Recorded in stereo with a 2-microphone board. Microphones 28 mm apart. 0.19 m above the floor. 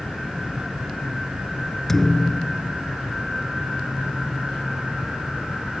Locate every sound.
1.9 s a thud: 10° left (ahead or behind)